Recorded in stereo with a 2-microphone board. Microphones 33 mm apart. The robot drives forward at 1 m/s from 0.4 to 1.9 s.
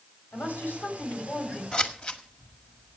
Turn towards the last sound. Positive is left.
turn(degrees=40)  # may be behind; listen again after turning